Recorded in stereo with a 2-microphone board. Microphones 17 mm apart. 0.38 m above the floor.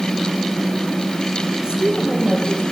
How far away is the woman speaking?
About 10 m.